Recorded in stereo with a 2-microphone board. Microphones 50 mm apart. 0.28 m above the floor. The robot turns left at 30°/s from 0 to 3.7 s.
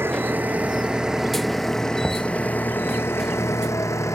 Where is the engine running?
135° right; by 4.2 s 115° left.